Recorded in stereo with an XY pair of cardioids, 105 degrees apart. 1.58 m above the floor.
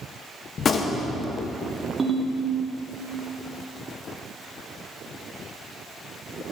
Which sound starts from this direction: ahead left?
A gunshot, at 0.6 s.